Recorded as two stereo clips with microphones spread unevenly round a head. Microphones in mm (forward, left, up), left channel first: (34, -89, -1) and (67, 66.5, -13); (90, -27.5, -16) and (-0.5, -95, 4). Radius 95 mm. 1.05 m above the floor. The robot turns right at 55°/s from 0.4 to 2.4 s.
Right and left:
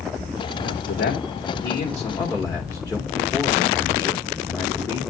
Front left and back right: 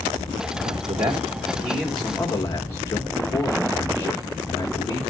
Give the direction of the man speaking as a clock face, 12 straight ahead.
4 o'clock.